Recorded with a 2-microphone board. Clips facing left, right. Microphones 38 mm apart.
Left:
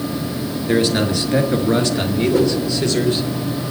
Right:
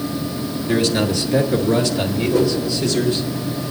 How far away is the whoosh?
About 8 m.